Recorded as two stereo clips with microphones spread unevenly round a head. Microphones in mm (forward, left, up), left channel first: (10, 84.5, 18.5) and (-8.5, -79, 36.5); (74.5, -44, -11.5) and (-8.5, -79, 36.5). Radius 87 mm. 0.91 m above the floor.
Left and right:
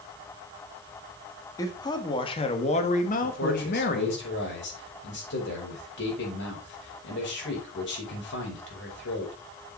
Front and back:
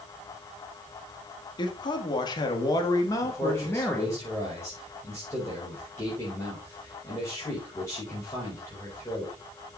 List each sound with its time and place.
1.6 s a man speaking: 15° left, 2 m; by 4.2 s 90° left, 1.6 m
3.2 s a man speaking: 85° left, 5 m